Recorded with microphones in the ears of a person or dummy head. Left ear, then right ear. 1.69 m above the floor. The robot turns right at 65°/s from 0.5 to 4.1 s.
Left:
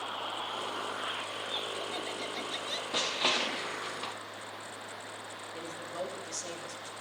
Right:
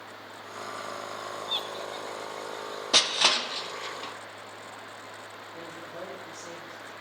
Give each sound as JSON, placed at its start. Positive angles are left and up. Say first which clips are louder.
{"t": 1.4, "sound": "laughter", "louder": "right 3 dB", "azimuth_deg": -35, "distance_m": 1.6}
{"t": 2.9, "sound": "crushing", "louder": "right 8 dB", "side_deg": -70, "distance_m": 0.8}
{"t": 5.5, "sound": "a woman speaking", "louder": "left 2 dB", "side_deg": 65, "distance_m": 3.0}